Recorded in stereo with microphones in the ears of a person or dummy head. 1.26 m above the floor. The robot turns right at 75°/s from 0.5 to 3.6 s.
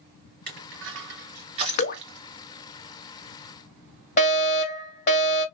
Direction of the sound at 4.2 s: 35° left (ahead or behind).